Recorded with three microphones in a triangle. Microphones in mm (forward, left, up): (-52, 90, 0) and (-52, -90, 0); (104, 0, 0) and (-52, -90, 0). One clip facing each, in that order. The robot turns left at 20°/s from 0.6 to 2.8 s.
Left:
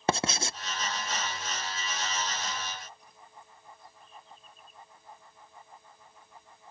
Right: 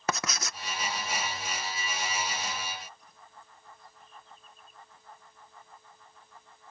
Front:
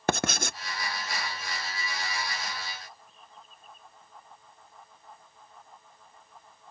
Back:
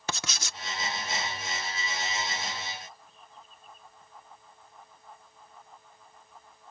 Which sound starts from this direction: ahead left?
Writing, at 0.1 s.